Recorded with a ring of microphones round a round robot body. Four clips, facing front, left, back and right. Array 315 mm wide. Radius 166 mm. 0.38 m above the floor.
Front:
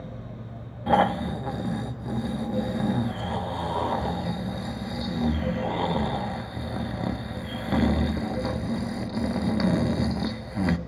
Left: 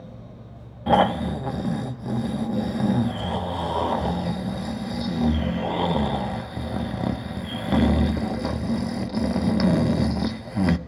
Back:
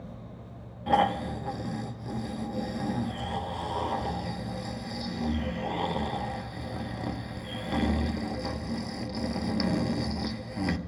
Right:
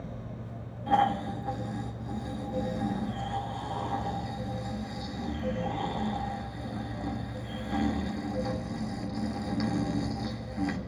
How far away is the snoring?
About 0.7 m.